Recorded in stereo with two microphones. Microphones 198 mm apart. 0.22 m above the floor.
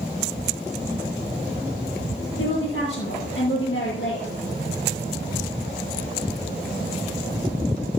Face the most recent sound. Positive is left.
turn(degrees=75)  # may be behind; listen again after turning